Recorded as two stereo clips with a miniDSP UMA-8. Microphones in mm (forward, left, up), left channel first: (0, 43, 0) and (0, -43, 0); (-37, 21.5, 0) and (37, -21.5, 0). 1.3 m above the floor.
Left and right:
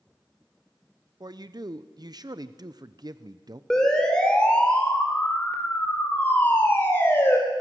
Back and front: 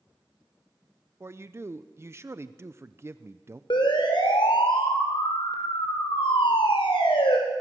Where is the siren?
170° left, 5.5 m; by 7.4 s 150° left, 6 m.